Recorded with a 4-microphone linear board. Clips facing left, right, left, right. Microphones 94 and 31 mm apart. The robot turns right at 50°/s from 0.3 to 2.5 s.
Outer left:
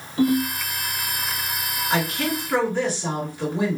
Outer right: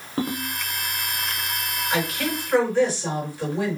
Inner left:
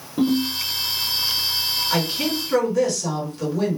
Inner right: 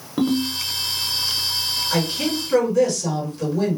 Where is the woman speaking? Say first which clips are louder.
Outer left 2 dB, inner right 2 dB; 120° left, 2 m; by 3.8 s 150° left, 2 m.